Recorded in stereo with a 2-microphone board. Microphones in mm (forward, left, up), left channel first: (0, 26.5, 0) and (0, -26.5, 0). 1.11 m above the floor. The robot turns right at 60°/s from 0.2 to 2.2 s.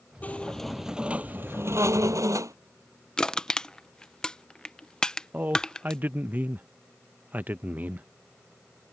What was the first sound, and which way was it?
A squeak, 150° left.